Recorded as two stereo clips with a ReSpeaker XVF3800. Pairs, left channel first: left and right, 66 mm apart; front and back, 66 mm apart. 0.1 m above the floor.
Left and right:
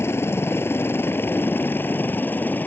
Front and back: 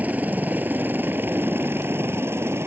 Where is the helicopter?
125° left; by 2.7 s 145° left.